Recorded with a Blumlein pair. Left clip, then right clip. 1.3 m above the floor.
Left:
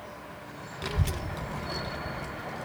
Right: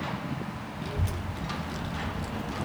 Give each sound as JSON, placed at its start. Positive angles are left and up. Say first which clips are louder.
{"t": 0.8, "sound": "a child speaking", "louder": "left 4 dB", "azimuth_deg": 25, "distance_m": 0.8}